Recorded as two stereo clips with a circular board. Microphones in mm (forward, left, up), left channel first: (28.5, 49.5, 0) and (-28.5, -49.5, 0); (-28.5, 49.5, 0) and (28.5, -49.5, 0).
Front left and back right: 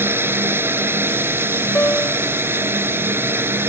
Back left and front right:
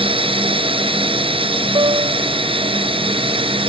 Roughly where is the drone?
Ahead right.